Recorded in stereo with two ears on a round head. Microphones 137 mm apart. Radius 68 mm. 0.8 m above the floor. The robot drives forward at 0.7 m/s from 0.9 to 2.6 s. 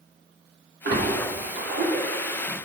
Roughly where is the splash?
Right.